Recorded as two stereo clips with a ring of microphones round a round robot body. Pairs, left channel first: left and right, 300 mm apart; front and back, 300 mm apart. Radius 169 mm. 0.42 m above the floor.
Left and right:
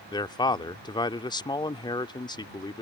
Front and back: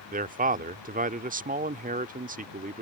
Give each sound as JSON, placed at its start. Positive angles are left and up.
{"t": 0.1, "sound": "a man speaking", "azimuth_deg": 150}